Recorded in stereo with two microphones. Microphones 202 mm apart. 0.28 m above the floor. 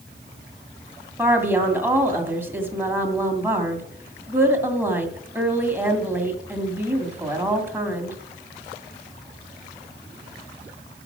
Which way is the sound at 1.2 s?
10° right (ahead or behind).